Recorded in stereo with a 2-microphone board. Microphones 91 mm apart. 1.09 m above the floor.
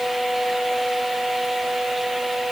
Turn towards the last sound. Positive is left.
No sound to turn to.